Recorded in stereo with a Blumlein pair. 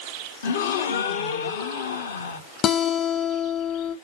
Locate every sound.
0.4 s a gasp: 60° left, 0.7 m
2.6 s a guitar: 25° left, 0.7 m